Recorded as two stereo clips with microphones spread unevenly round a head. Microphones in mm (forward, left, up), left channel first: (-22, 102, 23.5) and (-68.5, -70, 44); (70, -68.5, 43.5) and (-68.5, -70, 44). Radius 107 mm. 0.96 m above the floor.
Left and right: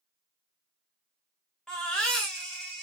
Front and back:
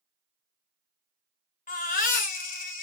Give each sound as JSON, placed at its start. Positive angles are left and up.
{"t": 1.7, "sound": "a baby crying", "azimuth_deg": -15, "distance_m": 1.6}